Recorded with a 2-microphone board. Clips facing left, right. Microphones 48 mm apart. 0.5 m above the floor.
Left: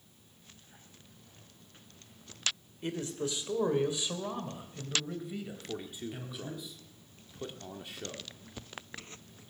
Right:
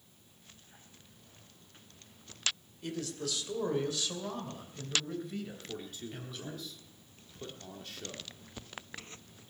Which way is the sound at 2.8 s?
30° left (ahead or behind).